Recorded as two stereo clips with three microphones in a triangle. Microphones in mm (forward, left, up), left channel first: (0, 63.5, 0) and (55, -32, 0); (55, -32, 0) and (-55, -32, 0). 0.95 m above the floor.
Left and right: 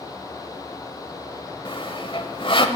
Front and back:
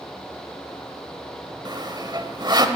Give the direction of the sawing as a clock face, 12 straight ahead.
7 o'clock.